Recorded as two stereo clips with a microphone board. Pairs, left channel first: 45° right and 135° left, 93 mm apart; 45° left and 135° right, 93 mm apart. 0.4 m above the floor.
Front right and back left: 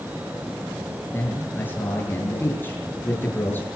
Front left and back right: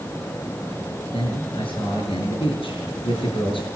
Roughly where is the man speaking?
Ahead.